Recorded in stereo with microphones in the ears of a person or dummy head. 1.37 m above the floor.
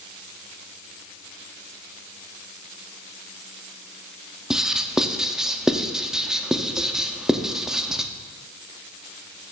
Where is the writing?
5° right (ahead or behind), 0.6 m.